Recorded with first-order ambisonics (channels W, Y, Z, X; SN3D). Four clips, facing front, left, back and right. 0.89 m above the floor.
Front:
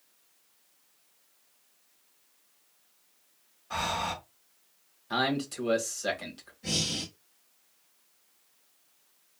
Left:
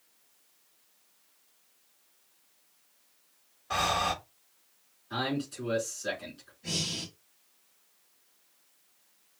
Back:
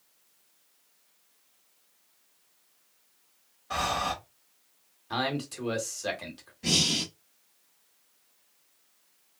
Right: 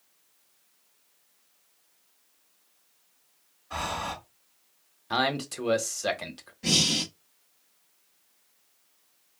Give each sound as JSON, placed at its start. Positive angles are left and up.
{"t": 3.7, "sound": "breathing", "azimuth_deg": 120, "distance_m": 1.5}
{"t": 5.1, "sound": "a man speaking", "azimuth_deg": -90, "distance_m": 1.1}
{"t": 6.6, "sound": "breathing", "azimuth_deg": -125, "distance_m": 0.6}